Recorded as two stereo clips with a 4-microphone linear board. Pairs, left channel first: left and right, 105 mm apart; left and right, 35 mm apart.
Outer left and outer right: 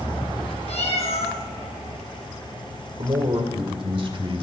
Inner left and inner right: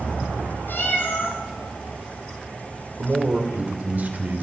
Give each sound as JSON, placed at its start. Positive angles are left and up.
{"t": 0.7, "sound": "a cat meowing", "side_deg": 80, "distance_m": 3.0}
{"t": 3.0, "sound": "a man speaking", "side_deg": -55, "distance_m": 2.0}